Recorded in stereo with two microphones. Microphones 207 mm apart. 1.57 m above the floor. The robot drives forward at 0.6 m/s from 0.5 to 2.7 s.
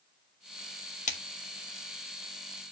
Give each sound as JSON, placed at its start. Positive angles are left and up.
{"t": 1.1, "sound": "a splash", "side_deg": 35, "distance_m": 1.5}